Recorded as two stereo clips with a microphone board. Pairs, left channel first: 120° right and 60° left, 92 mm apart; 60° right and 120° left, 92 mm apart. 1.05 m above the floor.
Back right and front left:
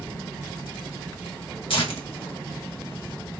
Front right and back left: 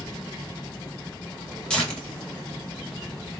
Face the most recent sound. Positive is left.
turn(degrees=-140)